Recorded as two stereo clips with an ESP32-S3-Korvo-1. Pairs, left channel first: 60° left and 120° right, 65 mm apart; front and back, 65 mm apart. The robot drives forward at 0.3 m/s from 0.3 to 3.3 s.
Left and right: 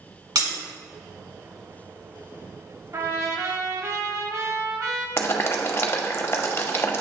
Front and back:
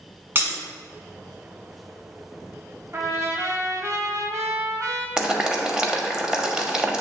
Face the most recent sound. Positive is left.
turn(degrees=105)